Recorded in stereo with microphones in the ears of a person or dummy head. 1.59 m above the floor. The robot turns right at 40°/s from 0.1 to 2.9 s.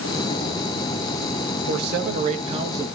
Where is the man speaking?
60° right, 2.5 m; by 3.0 s 10° right, 2.5 m.